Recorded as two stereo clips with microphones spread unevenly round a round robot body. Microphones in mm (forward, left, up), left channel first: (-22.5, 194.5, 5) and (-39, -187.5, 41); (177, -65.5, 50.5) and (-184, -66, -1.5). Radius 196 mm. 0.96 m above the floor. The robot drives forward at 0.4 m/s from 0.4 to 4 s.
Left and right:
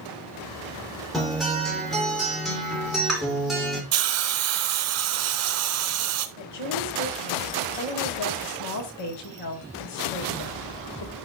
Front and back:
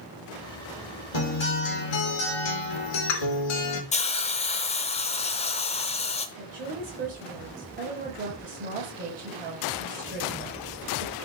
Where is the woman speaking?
110° left, 3.5 m.